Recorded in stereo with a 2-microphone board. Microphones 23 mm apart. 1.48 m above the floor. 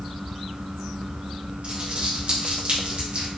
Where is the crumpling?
60° right (ahead or behind), 1.8 m.